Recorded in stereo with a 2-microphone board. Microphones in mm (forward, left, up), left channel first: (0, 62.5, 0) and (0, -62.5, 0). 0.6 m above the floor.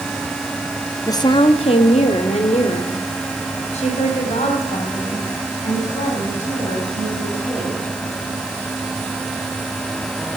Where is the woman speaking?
25° left (ahead or behind), 0.7 m; by 7.8 s 60° left (ahead or behind), 6 m.